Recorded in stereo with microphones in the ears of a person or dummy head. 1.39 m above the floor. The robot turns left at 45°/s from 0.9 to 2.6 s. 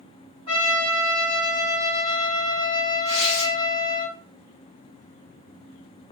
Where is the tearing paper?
35° left (ahead or behind), 1.1 m.